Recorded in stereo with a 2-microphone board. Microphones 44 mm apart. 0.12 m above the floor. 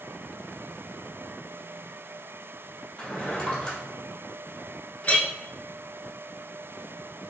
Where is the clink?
35° left (ahead or behind), 0.8 m.